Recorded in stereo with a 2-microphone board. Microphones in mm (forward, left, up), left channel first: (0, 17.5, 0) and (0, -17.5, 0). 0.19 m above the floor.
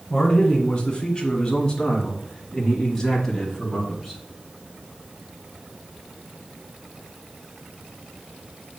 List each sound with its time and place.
0.1 s a man speaking: 25° left (ahead or behind), 2 m; by 4.2 s centre (ahead or behind), 1.8 m